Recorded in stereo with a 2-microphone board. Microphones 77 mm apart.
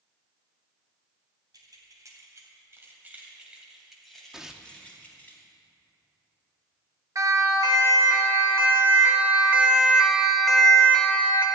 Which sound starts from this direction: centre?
Tearing paper, at 4.3 s.